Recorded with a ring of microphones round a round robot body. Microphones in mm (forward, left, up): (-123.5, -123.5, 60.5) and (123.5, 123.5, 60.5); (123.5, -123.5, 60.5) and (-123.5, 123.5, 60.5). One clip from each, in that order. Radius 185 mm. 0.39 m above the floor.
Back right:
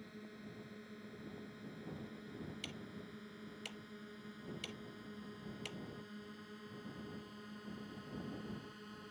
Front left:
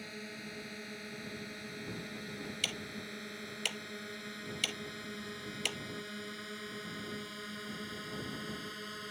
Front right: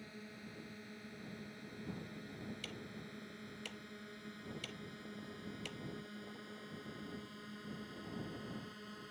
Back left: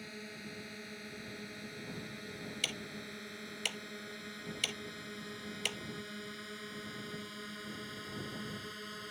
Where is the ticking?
90° left.